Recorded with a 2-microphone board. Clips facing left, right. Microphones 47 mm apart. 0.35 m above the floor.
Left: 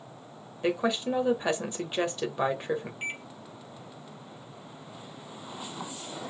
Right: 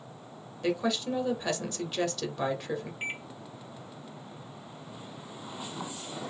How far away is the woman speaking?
About 1.0 m.